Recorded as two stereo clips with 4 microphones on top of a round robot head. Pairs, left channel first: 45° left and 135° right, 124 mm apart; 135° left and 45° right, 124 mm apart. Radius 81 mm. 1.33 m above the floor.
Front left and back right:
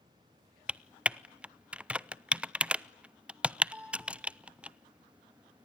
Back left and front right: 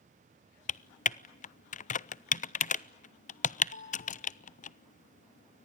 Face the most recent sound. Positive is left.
turn(degrees=145)